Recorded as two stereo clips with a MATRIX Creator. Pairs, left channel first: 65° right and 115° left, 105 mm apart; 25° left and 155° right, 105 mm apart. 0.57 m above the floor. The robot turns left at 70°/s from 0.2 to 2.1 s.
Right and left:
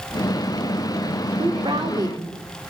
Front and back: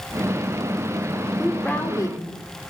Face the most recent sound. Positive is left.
turn(degrees=70)